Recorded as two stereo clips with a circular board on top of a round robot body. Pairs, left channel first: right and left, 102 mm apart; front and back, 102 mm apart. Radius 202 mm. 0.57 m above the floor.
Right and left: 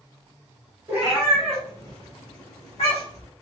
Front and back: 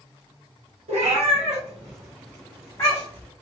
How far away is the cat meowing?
About 1.0 m.